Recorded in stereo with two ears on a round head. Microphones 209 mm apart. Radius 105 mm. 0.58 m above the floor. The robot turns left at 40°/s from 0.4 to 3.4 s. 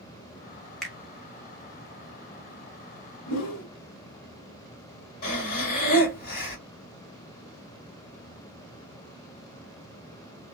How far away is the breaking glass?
I don't hear breaking glass.